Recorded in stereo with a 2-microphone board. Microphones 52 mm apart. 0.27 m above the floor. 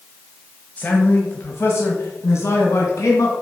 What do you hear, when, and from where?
0.8 s a man speaking: 30° left (ahead or behind), 1.1 m; by 3.3 s 65° left (ahead or behind), 2 m